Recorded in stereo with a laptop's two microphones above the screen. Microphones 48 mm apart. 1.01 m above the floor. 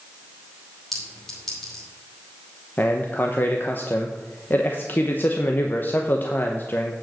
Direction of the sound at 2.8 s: 45° left (ahead or behind).